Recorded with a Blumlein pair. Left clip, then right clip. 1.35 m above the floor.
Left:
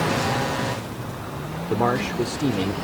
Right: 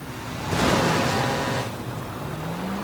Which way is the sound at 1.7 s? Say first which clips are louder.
Left 11 dB; 50° left.